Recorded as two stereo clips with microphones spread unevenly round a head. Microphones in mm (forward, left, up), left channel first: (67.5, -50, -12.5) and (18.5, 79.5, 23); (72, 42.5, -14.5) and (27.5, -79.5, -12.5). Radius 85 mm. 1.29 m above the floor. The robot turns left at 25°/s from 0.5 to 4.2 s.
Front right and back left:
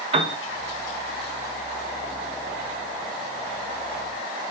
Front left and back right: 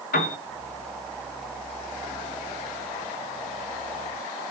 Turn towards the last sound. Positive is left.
turn(degrees=-35)